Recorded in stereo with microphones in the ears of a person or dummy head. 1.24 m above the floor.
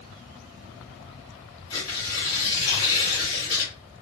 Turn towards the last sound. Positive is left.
turn(degrees=20)  # may be behind; listen again after turning